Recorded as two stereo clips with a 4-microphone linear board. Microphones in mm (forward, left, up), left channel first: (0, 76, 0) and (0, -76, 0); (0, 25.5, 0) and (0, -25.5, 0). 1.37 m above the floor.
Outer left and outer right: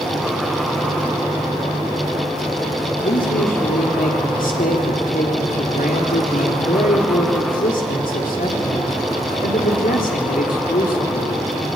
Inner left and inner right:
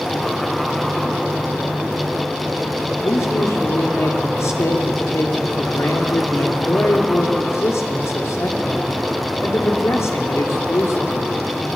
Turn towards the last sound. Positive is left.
turn(degrees=85)